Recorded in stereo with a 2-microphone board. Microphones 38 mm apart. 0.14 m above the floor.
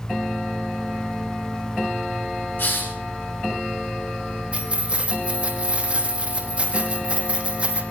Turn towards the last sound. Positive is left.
turn(degrees=-30)  # may be behind; listen again after turning